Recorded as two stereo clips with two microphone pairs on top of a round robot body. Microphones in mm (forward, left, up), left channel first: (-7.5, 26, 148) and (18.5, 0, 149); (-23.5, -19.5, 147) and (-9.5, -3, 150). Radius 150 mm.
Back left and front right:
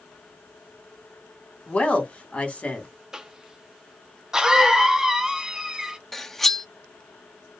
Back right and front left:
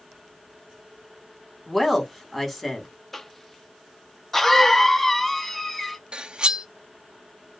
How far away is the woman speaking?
About 1.5 m.